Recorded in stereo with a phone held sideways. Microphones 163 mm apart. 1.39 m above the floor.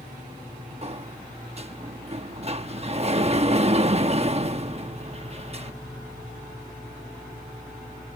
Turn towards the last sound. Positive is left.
turn(degrees=-40)  # may be behind; listen again after turning